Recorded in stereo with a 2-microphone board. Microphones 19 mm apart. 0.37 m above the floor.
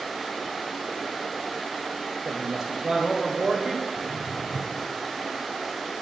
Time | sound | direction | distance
2.2 | a woman speaking | 30° right (ahead or behind) | 1.5 m
4.0 | footsteps | 80° right | 1.8 m